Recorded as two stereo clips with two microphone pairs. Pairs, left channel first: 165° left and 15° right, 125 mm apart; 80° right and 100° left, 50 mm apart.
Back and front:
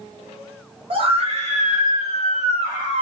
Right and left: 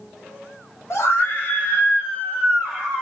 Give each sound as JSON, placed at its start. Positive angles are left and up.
{"t": 0.9, "sound": "a scream", "azimuth_deg": -60, "distance_m": 0.9}